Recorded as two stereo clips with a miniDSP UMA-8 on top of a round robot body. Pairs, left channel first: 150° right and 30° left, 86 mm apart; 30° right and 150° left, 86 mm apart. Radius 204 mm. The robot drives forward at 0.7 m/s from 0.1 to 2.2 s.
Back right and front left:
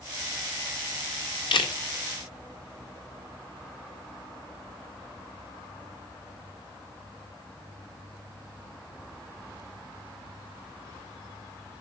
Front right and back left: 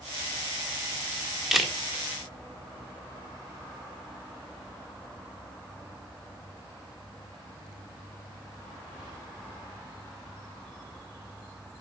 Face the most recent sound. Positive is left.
turn(degrees=-135)